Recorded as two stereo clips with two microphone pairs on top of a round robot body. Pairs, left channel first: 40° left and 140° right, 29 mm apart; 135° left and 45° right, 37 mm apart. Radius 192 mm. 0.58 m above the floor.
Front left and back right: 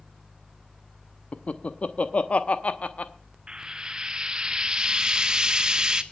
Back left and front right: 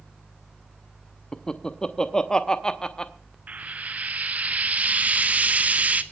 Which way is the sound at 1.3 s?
70° left.